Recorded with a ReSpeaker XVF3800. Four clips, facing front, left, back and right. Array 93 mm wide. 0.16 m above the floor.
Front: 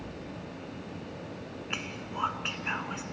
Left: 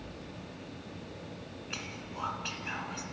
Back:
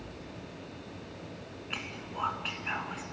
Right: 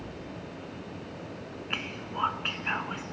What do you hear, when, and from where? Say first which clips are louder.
1.7 s whispering: right 7 dB, front 2 dB; 65° right, 1.9 m